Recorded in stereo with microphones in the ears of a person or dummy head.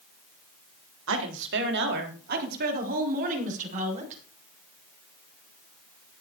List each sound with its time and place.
1.1 s a woman speaking: 75° right (ahead or behind), 3 m; by 4.2 s 40° right (ahead or behind), 5.5 m